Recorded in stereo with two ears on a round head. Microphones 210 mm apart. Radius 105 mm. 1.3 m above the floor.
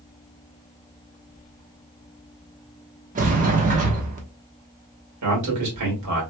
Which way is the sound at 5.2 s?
85° right.